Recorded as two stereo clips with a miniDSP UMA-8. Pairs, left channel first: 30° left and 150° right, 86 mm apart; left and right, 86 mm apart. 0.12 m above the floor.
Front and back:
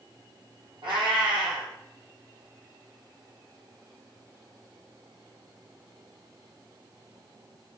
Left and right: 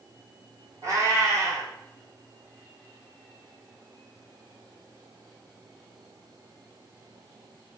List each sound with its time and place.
0.8 s a cat meowing: 140° right, 0.9 m